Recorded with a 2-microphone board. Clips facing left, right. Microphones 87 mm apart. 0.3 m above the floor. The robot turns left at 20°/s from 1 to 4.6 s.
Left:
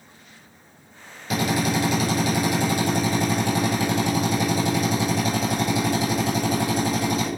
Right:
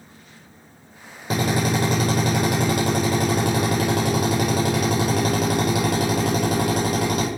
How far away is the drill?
About 8 m.